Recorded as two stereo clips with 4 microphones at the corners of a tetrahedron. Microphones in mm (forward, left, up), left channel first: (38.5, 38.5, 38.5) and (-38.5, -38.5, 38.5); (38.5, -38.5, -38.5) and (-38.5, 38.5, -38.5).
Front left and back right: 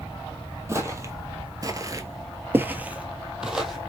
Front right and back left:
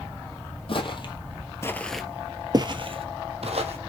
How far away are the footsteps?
About 1.1 m.